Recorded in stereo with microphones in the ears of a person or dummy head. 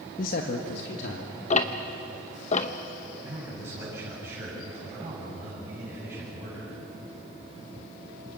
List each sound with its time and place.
0.2 s a man speaking: 50° left (ahead or behind), 1.2 m; by 1.3 s 75° left (ahead or behind), 2.5 m
1.5 s ticking: 35° left (ahead or behind), 1.0 m
3.2 s a man speaking: 15° right (ahead or behind), 8 m